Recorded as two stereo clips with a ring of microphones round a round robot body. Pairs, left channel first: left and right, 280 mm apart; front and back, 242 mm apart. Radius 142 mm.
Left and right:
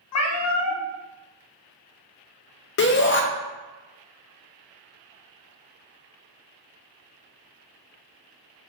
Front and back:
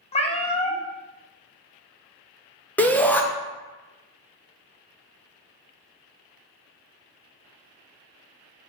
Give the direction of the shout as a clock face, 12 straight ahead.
9 o'clock.